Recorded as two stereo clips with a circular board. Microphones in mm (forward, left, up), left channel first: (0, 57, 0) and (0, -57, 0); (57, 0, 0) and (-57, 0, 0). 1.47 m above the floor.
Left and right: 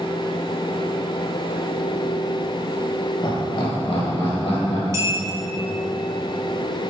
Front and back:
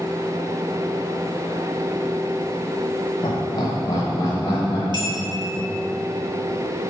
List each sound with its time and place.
3.2 s laughter: 45° left, 1.1 m; by 4.8 s 60° left, 1.9 m
4.9 s a clink: 150° right, 0.9 m